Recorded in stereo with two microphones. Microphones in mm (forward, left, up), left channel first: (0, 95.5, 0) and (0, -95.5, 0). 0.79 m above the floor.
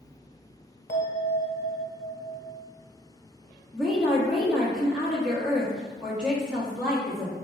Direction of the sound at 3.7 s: 5° right (ahead or behind).